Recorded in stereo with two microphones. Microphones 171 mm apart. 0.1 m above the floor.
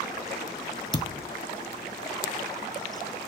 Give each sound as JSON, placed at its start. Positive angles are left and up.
{"t": 0.9, "sound": "a thud", "side_deg": 35, "distance_m": 0.6}